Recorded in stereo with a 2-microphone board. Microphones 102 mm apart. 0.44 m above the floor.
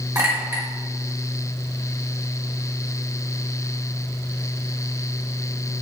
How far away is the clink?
About 1.1 m.